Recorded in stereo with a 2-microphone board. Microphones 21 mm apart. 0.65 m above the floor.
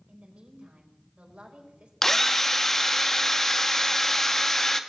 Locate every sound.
0.1 s a woman speaking: 70° right (ahead or behind), 3.5 m
2.0 s a drill: 20° left (ahead or behind), 0.8 m